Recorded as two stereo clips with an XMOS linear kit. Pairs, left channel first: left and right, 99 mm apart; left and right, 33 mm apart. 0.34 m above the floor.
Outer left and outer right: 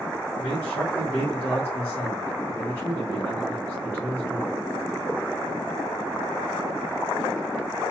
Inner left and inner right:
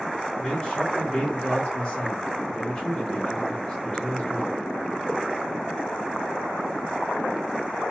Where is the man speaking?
20° left (ahead or behind), 1.1 m.